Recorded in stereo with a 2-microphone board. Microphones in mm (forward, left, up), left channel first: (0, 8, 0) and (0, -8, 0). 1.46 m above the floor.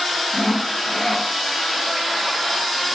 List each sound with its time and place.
0.3 s sawing: 40° left (ahead or behind), 4.5 m